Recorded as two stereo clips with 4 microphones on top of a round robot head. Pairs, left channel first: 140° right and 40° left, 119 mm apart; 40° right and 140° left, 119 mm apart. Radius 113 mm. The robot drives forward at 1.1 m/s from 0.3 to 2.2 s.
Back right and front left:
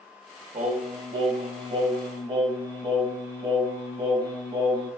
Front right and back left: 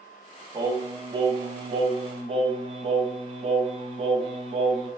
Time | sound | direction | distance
0.5 | singing | 75° left | 4.5 m